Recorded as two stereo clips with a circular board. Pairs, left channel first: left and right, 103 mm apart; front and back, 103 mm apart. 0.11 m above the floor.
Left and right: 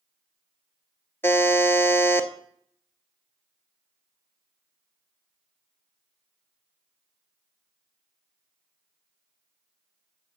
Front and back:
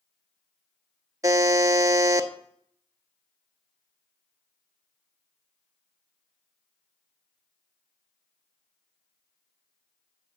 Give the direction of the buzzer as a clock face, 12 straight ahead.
7 o'clock.